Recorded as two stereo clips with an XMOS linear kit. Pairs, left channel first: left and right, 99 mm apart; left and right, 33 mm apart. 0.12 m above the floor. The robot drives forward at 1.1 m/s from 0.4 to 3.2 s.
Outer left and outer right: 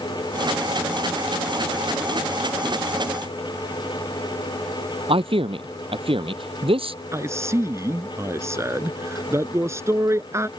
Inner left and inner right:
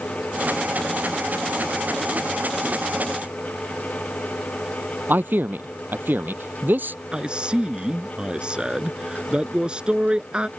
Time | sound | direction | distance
5.1 | a man speaking | 70° right (ahead or behind) | ?
7.1 | a man speaking | 30° right (ahead or behind) | ?